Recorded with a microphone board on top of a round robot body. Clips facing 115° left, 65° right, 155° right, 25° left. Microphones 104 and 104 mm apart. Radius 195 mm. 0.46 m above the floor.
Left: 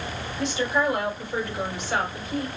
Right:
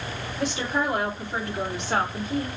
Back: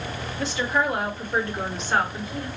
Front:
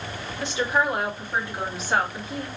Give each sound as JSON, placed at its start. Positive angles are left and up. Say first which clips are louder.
{"t": 0.4, "sound": "a woman speaking", "louder": "left 2 dB, front 1 dB", "azimuth_deg": -40, "distance_m": 2.5}